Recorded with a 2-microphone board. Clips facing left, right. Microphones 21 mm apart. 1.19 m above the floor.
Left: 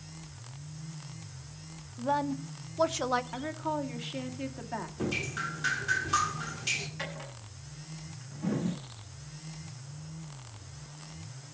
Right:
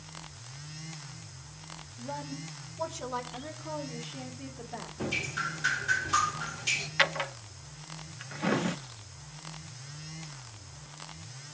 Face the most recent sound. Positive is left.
turn(degrees=-60)  # may be behind; listen again after turning